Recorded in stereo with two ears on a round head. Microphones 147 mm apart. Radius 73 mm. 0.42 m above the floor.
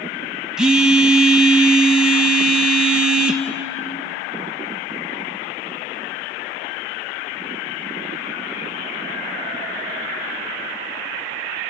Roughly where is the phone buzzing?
Centre.